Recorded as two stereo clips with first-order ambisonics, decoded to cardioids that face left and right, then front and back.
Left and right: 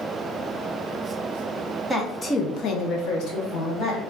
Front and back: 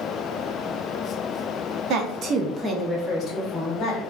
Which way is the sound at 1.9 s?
Straight behind.